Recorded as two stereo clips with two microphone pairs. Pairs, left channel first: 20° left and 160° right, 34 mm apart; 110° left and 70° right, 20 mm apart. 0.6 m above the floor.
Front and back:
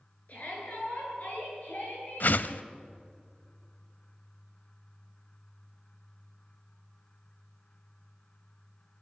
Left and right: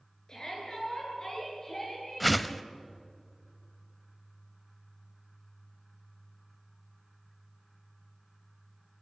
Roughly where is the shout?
Ahead left.